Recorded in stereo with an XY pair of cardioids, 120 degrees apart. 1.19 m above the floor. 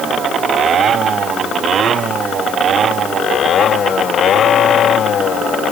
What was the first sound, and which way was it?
Only background noise.